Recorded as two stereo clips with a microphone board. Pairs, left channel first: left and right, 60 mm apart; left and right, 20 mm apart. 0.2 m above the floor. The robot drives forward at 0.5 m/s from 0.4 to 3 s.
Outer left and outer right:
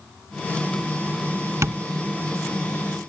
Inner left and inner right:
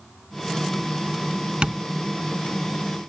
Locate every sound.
1.6 s tapping: 55° right (ahead or behind)